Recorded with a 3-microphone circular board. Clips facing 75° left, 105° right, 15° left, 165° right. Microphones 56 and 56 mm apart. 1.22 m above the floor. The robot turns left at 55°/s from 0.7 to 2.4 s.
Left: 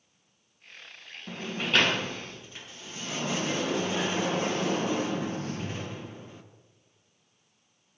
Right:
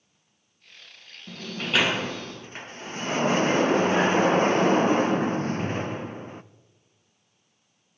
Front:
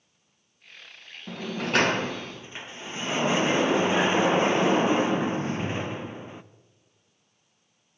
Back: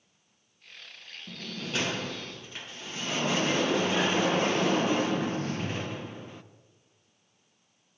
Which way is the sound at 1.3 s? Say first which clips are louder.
Even, front 9 dB; 10° left.